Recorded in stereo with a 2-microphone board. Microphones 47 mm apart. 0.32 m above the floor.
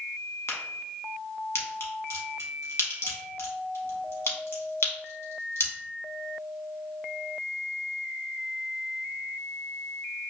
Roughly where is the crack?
Left.